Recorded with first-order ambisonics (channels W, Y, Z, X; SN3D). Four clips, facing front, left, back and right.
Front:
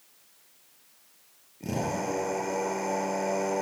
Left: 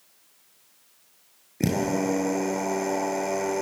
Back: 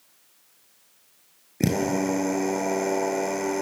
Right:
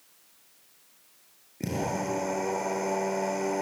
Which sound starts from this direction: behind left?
A drill, at 1.6 s.